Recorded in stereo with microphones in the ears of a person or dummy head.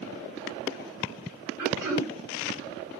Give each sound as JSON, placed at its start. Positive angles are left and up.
{"t": 1.6, "sound": "throat clearing", "side_deg": -20, "distance_m": 1.9}